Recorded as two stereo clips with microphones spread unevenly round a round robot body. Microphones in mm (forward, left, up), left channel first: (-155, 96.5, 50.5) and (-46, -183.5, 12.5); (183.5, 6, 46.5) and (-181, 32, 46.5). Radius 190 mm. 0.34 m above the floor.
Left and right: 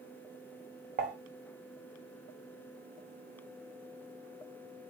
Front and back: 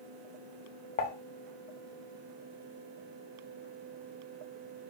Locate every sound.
1.0 s dishes clattering: 55° right, 0.6 m